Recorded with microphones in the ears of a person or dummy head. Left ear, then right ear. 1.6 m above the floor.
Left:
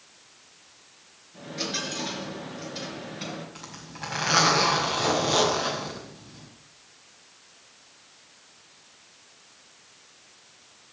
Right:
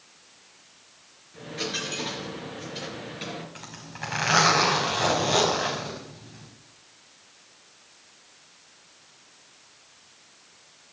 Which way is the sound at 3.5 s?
25° right (ahead or behind).